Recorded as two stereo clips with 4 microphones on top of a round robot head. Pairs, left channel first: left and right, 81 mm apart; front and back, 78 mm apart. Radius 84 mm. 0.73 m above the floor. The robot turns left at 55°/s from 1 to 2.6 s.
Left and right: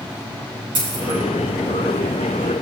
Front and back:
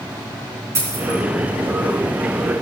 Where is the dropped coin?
125° right, 4.5 m; by 1.2 s 135° right, 4.5 m.